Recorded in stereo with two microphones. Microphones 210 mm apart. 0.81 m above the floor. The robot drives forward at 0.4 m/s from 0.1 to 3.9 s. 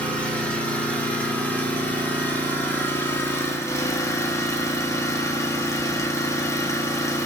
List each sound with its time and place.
0.0 s an engine running: 5° left (ahead or behind), 2.5 m; by 7.3 s 15° left (ahead or behind), 1.3 m